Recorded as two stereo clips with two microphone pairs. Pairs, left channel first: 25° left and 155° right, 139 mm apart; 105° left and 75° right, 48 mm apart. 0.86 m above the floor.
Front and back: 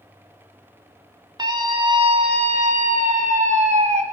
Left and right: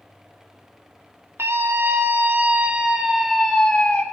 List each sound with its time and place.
1.4 s a scream: 95° right, 2 m; by 4.0 s 175° left, 1.6 m